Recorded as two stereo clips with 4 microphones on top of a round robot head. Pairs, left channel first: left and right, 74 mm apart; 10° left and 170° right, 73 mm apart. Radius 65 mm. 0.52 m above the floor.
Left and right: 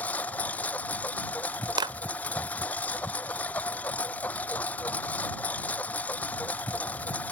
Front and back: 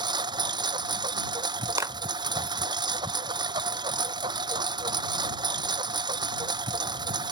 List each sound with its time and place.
0.0 s a lawn mower: 165° left
1.8 s a clap: 120° right